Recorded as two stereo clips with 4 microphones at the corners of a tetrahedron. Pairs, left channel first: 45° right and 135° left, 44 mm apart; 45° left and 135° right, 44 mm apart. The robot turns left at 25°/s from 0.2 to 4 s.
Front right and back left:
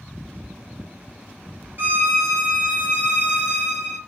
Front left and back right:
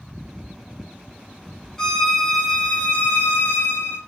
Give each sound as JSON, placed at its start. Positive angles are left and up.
{"t": 1.8, "sound": "a violin", "azimuth_deg": 120, "distance_m": 0.9}